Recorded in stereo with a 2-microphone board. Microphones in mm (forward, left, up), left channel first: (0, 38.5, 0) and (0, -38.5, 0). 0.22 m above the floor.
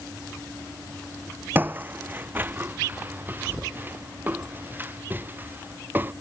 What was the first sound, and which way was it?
Footsteps, 25° right (ahead or behind).